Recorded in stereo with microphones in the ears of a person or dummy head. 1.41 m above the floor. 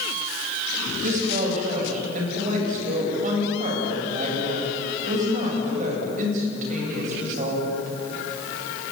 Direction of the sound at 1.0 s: 45° right (ahead or behind).